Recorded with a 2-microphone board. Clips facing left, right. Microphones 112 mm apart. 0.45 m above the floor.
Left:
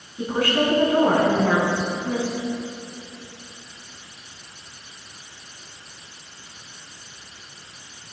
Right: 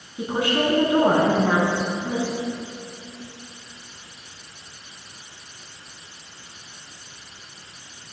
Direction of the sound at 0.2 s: 20° right (ahead or behind).